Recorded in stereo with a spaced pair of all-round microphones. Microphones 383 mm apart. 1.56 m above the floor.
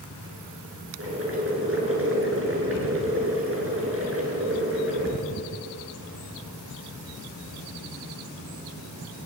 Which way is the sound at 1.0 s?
35° right (ahead or behind).